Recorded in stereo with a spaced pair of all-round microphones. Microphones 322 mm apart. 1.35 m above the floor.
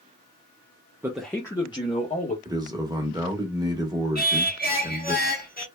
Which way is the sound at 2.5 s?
10° right (ahead or behind).